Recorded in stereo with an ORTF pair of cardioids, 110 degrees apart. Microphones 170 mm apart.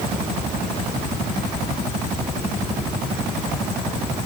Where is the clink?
No clink in this recording.